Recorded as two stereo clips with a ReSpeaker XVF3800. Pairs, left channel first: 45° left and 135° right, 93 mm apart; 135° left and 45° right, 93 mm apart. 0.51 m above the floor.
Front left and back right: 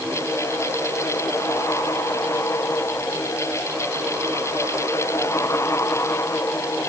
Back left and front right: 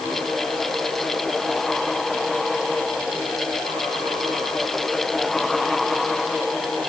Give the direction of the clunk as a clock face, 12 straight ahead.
I don't hear a clunk.